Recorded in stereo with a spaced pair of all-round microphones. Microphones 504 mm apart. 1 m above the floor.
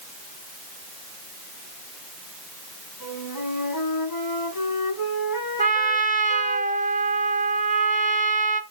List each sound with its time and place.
3.0 s a flute: 45° left (ahead or behind), 4.5 m
5.6 s a trumpet: 15° right (ahead or behind), 0.8 m